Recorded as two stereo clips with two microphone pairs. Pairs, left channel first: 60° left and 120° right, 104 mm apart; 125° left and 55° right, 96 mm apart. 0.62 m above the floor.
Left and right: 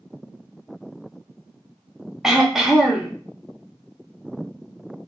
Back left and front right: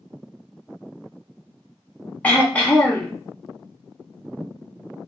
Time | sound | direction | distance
2.2 | throat clearing | 160° left | 0.7 m